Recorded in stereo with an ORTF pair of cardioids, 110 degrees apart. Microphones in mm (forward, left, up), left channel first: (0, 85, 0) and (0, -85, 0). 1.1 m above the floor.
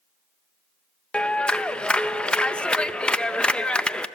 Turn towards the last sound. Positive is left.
turn(degrees=5)